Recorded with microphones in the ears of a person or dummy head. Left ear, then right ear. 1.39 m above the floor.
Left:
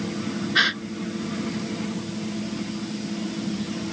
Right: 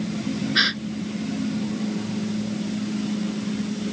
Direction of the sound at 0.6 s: 15° left (ahead or behind).